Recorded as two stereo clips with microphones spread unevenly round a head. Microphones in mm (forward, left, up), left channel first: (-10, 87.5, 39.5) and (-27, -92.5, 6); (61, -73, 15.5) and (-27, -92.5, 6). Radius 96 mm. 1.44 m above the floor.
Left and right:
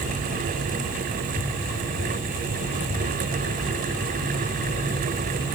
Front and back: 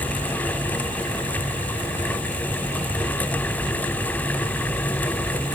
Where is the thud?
No thud in this recording.